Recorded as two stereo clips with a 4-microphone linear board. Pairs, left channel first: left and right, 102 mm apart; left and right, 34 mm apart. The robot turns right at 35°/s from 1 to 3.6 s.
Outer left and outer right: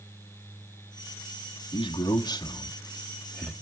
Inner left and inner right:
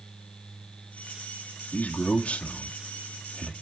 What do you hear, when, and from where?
1.7 s a man speaking: 60° left (ahead or behind), 1.2 m; by 3.5 s centre (ahead or behind), 1.2 m